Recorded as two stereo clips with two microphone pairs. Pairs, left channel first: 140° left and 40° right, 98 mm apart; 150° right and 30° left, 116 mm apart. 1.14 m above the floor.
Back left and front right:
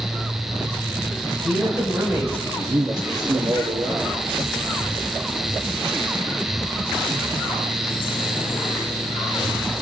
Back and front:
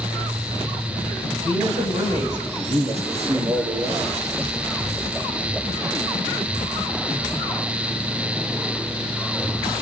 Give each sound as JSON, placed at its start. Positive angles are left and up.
{"t": 1.2, "sound": "a woman speaking", "azimuth_deg": 45, "distance_m": 4.5}
{"t": 2.6, "sound": "a man speaking", "azimuth_deg": 5, "distance_m": 2.0}